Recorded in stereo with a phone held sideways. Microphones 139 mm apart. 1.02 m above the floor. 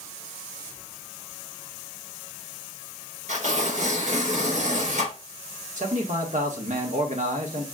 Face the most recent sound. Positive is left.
turn(degrees=-60)  # may be behind; listen again after turning